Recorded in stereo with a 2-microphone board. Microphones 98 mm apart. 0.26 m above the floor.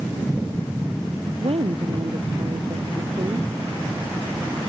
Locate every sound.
1.4 s a woman speaking: 65° right (ahead or behind); by 3.5 s 45° right (ahead or behind)